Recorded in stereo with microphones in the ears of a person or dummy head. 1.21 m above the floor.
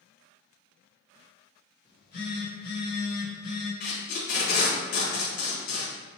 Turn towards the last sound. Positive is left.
turn(degrees=45)  # may be behind; listen again after turning